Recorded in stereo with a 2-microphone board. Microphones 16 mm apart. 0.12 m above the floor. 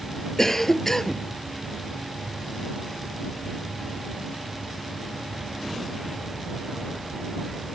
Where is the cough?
20° left (ahead or behind).